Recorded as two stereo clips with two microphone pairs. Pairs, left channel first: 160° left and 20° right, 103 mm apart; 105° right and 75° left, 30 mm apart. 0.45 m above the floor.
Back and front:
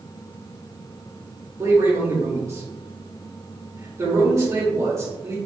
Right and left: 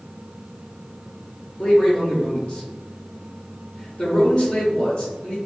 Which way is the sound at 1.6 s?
70° right.